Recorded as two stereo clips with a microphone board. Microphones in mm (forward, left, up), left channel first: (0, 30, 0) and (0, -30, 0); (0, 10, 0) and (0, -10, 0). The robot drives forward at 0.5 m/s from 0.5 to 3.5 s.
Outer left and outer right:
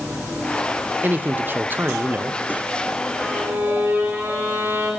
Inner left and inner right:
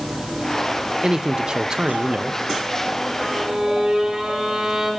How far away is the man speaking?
About 0.5 m.